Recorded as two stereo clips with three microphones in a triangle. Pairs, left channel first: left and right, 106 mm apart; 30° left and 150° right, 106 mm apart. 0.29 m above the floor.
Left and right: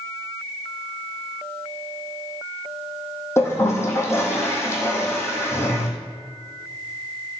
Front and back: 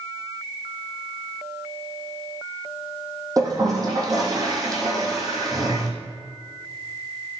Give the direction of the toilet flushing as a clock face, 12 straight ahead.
7 o'clock.